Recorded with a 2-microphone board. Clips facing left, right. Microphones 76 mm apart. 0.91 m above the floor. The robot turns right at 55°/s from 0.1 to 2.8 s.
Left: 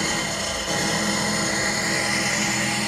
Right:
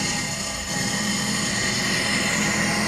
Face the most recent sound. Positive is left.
turn(degrees=-160)